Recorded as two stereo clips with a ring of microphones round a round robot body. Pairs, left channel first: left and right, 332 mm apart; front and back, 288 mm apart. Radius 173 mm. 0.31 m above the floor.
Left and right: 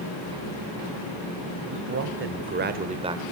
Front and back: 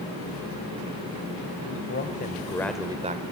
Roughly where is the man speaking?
Ahead right.